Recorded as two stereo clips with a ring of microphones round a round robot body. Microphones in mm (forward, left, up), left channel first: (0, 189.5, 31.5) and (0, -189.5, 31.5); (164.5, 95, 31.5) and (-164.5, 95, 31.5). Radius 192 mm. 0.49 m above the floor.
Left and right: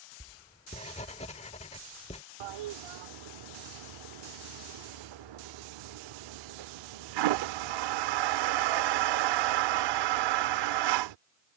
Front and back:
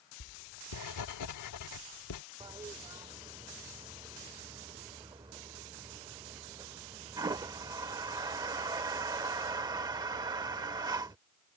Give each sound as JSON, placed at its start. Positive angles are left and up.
{"t": 0.2, "sound": "writing", "azimuth_deg": 20}
{"t": 2.4, "sound": "a toilet flushing", "azimuth_deg": -100}